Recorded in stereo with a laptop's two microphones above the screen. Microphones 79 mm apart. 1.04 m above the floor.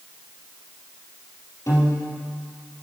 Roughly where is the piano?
Left.